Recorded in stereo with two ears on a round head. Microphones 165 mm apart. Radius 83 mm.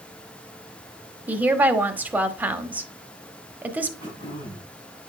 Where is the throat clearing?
25° right (ahead or behind), 7 m.